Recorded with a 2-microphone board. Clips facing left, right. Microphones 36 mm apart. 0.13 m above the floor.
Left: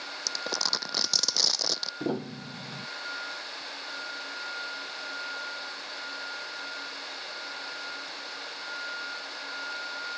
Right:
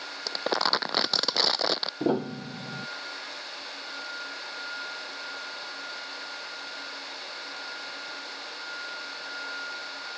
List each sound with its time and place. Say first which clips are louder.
0.3 s crumpling: right 6 dB; 35° right (ahead or behind)
2.0 s a piano: right 5 dB; 25° right (ahead or behind)